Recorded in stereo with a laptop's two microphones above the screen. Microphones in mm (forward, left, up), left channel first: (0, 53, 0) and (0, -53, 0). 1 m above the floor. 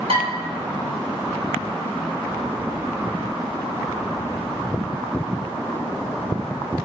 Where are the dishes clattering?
70° right (ahead or behind), 2.5 m.